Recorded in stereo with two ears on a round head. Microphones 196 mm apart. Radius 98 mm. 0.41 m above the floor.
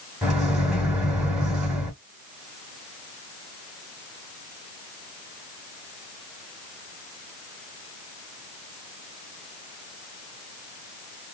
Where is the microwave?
5° right (ahead or behind), 1.5 m.